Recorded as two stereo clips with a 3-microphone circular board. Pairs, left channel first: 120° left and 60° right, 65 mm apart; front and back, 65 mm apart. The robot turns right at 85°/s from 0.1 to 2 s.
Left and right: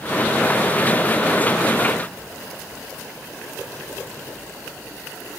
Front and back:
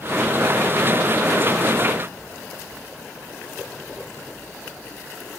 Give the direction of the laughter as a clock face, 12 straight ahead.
No laughter in this recording.